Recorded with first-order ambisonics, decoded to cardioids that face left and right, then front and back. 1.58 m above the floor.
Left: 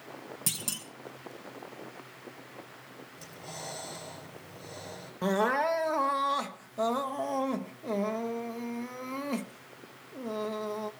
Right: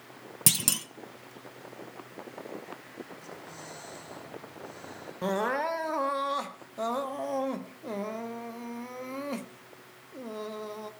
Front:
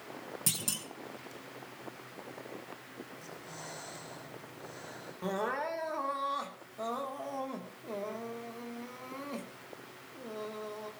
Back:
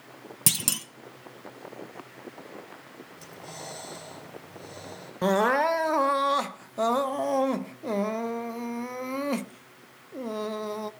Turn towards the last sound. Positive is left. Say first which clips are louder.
# left 2 dB, back 12 dB
turn(degrees=175)